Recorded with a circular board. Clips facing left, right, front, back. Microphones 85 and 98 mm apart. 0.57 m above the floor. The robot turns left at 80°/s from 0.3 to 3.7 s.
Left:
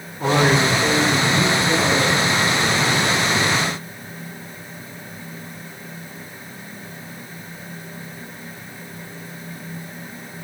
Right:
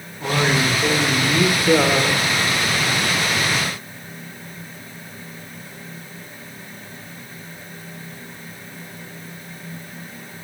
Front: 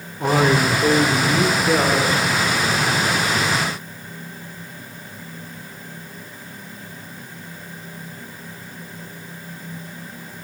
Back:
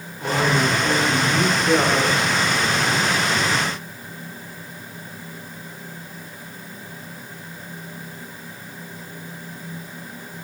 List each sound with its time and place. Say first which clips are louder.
0.2 s a man speaking: left 3 dB, front 3 dB; 35° left, 2.0 m; by 2.3 s 130° right, 2.0 m